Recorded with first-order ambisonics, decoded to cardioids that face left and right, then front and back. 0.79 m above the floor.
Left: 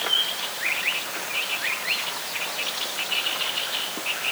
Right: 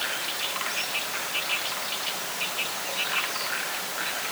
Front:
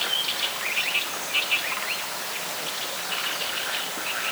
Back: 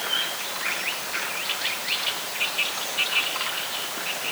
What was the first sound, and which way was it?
Only background noise.